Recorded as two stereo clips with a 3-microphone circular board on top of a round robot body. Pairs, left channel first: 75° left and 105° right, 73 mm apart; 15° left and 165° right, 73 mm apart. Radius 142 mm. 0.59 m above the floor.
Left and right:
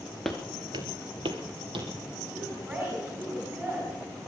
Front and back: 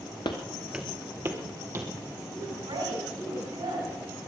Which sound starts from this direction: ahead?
Footsteps, at 0.2 s.